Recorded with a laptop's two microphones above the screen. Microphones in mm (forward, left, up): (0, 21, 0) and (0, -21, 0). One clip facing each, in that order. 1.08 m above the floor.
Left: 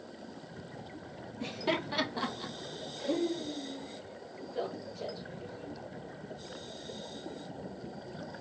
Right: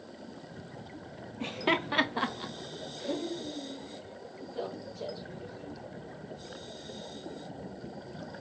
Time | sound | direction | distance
1.4 | laughter | 40° right (ahead or behind) | 1.0 m